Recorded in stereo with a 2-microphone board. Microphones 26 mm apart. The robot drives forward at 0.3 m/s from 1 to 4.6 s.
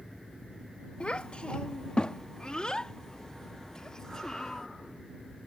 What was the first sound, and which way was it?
A child speaking, 40° left (ahead or behind).